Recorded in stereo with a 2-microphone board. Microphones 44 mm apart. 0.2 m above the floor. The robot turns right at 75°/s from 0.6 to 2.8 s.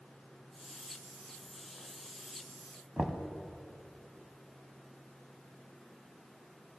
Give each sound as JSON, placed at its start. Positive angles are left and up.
{"t": 3.0, "sound": "knocking", "side_deg": -20, "distance_m": 0.7}